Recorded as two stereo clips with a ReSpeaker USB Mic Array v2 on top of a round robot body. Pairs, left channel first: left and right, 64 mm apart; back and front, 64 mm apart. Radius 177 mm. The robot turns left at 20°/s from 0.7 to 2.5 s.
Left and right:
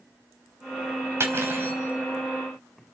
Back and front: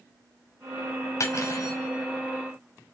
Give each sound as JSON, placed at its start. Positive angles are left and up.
{"t": 1.2, "sound": "cutlery clinking", "azimuth_deg": -140, "distance_m": 2.5}